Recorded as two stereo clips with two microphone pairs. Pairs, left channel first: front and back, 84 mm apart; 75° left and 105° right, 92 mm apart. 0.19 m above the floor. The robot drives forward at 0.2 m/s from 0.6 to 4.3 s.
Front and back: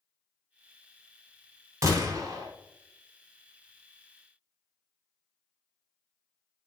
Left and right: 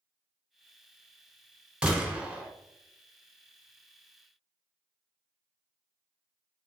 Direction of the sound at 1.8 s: Straight behind.